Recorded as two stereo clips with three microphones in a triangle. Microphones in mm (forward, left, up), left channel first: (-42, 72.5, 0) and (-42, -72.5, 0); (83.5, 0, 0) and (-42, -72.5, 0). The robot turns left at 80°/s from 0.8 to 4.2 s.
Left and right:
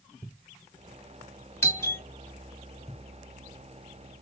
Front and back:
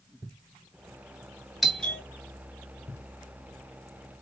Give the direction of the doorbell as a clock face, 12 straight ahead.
8 o'clock.